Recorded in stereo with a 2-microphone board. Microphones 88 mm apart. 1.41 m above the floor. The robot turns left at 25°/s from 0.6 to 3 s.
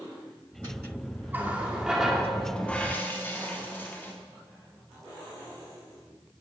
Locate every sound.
1.3 s a running tap: 160° right, 2.5 m; by 4.1 s 160° left, 2.5 m